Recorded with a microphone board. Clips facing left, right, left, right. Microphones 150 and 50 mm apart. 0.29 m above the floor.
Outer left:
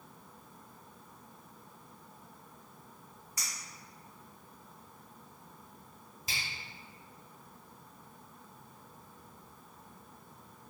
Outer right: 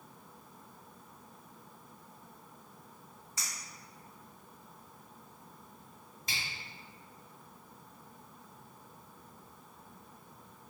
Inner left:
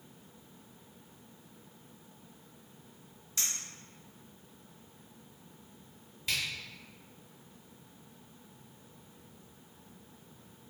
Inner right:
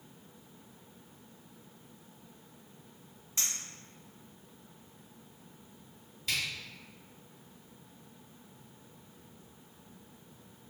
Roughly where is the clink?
Right.